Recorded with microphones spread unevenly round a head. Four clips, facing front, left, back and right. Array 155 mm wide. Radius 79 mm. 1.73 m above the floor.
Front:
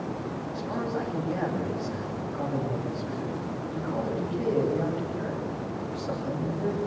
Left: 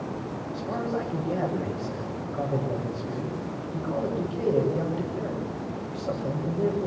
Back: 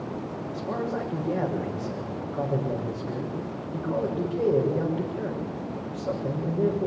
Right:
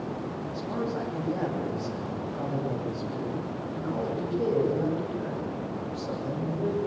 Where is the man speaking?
170° left, 7.5 m.